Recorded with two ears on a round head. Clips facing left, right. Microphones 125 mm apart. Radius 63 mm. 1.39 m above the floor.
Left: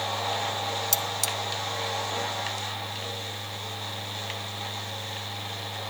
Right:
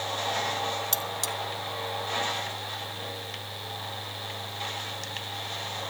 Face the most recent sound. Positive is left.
turn(degrees=15)  # may be behind; listen again after turning